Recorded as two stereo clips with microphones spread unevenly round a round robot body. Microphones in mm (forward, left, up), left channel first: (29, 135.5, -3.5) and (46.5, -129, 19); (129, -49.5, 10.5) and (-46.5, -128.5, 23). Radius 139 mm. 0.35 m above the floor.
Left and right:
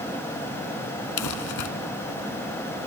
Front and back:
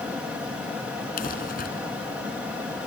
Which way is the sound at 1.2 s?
80° left.